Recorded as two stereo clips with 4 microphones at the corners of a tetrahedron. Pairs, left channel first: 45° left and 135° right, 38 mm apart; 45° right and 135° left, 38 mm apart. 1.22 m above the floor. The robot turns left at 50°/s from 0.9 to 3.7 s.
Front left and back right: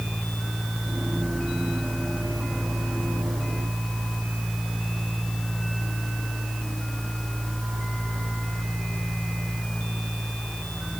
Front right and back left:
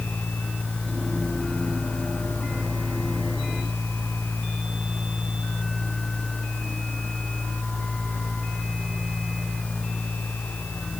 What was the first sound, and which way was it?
Only background noise.